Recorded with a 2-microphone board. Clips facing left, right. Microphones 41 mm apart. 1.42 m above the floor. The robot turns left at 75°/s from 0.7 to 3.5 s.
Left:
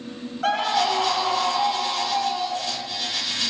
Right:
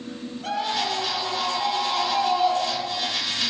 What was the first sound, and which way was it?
A scream, 100° left.